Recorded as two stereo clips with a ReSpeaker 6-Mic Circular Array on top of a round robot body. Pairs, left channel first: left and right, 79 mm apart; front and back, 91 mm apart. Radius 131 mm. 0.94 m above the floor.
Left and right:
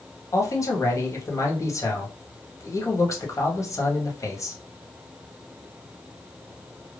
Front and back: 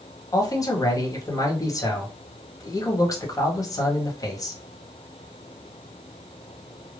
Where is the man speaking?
45° left, 1.4 m.